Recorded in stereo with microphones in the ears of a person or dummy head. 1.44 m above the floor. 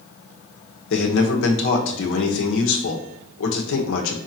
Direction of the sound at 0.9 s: 75° left (ahead or behind).